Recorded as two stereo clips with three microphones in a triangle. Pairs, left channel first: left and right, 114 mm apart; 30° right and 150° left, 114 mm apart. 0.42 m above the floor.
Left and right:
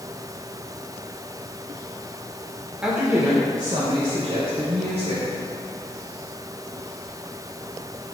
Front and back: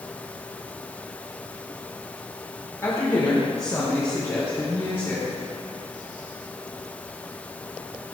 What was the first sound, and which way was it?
A woman speaking, 15° right.